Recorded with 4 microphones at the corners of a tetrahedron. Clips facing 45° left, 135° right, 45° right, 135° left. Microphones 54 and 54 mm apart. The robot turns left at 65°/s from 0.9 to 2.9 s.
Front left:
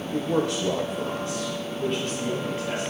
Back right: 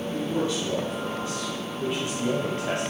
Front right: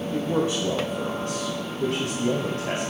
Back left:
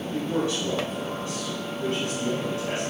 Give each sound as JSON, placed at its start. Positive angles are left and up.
{"t": 0.1, "sound": "a man speaking", "azimuth_deg": 20, "distance_m": 1.2}